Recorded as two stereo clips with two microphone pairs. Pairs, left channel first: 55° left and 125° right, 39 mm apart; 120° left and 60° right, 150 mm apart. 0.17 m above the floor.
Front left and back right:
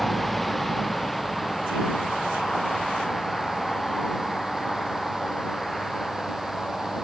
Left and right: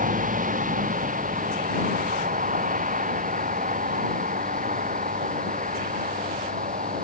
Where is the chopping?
I don't hear chopping.